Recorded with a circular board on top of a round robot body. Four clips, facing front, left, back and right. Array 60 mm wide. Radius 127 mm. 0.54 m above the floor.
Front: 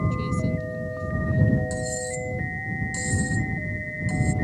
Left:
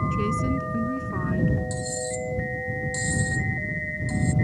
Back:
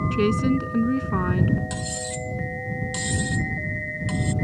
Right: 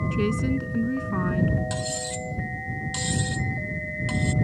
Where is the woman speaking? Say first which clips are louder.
Even, back 7 dB; 165° right.